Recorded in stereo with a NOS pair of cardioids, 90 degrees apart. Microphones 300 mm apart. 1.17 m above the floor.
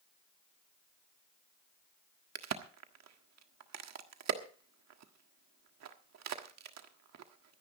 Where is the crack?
60° right, 1.5 m.